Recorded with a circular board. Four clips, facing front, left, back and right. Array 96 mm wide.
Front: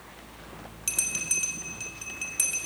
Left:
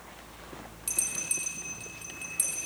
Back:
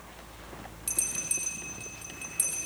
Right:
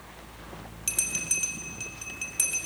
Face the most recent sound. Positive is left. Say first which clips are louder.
# right 5 dB, front 3 dB
turn(degrees=-45)